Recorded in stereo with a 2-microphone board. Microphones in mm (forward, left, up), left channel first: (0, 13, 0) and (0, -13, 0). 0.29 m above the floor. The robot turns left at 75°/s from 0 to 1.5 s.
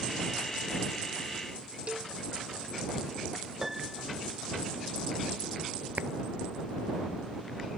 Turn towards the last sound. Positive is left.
turn(degrees=-75)  # may be behind; listen again after turning